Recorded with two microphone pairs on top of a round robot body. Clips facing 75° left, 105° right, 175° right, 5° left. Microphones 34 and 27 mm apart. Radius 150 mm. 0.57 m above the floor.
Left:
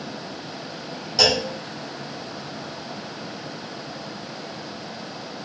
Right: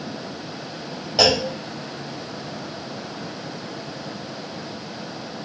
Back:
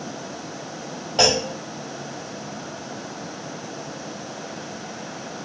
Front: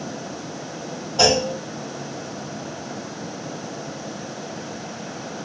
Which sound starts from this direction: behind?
A clunk, at 1.2 s.